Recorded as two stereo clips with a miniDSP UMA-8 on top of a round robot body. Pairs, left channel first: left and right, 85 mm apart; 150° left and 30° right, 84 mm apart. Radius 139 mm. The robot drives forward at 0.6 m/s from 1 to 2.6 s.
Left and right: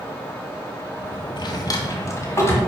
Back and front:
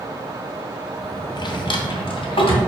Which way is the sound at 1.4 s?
120° left.